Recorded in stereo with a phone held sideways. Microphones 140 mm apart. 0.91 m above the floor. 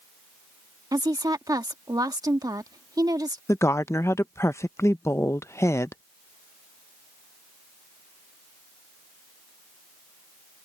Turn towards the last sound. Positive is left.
turn(degrees=20)  # may be behind; listen again after turning